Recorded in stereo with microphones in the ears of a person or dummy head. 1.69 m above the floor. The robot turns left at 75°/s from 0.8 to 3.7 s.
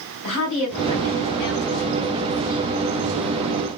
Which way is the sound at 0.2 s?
145° left.